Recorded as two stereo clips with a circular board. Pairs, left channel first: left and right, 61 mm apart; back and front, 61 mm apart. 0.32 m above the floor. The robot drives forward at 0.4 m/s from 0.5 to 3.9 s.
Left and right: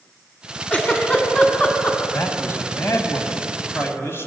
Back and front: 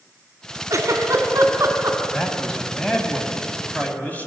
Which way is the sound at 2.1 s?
100° left.